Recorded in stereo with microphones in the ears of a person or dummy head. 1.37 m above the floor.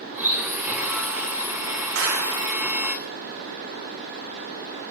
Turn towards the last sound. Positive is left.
turn(degrees=-75)  # may be behind; listen again after turning